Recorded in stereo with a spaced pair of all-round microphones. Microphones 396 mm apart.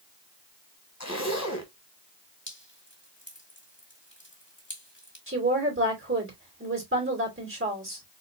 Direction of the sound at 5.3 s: 30° right (ahead or behind).